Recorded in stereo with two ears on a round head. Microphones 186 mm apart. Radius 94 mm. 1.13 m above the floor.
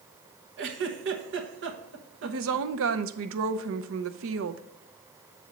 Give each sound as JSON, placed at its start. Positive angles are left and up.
{"t": 0.6, "sound": "a giggle", "side_deg": -65, "distance_m": 1.0}
{"t": 2.2, "sound": "a woman speaking", "side_deg": -70, "distance_m": 0.6}